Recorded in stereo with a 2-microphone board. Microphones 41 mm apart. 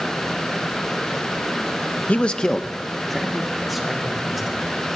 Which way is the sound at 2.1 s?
40° left (ahead or behind).